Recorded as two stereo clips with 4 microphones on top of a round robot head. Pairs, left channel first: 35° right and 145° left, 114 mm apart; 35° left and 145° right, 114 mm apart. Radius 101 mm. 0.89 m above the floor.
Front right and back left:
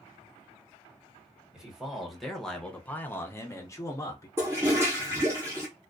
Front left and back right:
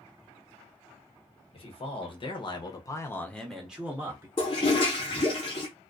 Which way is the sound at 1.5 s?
60° left.